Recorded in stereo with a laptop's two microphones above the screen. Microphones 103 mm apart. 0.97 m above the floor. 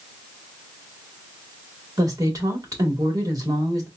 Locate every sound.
2.0 s a woman speaking: 35° right (ahead or behind), 1.9 m